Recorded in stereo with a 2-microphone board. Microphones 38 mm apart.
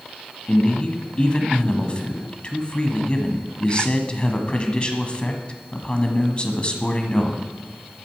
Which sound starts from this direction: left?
A man speaking, at 0.5 s.